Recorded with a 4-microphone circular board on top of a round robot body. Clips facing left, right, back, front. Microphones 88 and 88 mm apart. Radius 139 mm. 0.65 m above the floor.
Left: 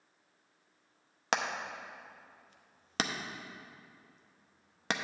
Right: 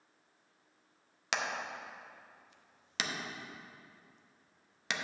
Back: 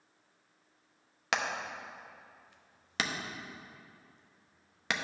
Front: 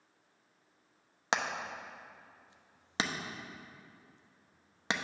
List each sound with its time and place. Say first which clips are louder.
1.3 s hammering: left 3 dB, even; 55° left, 0.8 m